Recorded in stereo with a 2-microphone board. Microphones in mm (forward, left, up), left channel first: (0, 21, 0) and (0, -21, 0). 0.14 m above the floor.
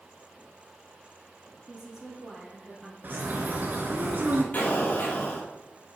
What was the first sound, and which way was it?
A woman speaking, 15° right (ahead or behind).